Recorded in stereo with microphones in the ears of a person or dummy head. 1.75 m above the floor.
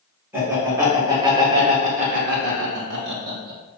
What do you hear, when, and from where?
0.3 s laughter: 10° right (ahead or behind), 1.4 m; by 3.6 s 50° right (ahead or behind), 0.8 m